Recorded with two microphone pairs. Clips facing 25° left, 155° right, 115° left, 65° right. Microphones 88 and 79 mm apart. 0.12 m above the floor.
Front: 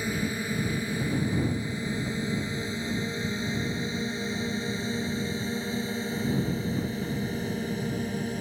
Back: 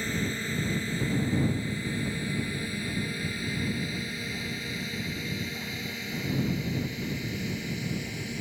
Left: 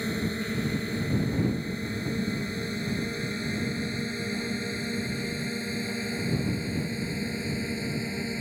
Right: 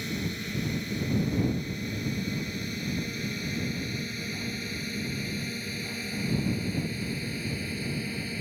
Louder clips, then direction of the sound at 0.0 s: Front 2 dB, left 4 dB; 90° left.